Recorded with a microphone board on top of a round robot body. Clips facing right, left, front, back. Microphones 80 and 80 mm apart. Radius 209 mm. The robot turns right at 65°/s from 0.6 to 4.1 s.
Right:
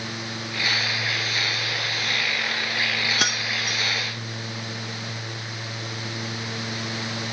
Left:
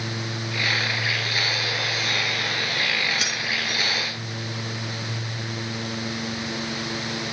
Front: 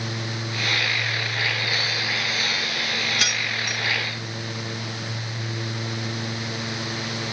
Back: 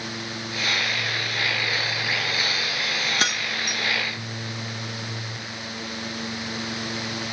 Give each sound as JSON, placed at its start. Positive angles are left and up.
{"t": 3.2, "sound": "keys jangling", "azimuth_deg": -130, "distance_m": 0.7}